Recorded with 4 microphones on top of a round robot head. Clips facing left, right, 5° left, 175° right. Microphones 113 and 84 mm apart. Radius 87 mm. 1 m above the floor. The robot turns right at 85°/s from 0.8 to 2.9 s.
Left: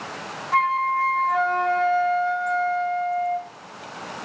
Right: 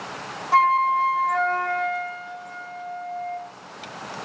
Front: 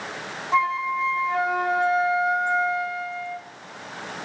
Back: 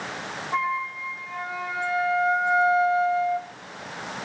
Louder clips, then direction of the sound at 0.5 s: Right 3 dB, front 5 dB; 45° right.